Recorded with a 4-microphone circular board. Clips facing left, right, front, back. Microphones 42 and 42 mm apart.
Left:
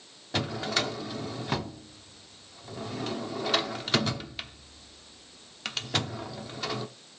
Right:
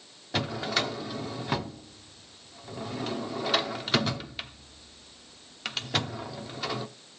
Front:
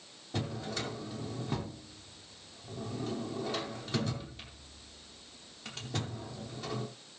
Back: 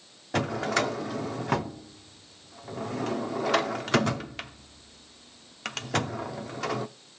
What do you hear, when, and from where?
0.3 s a drawer: 175° right, 0.7 m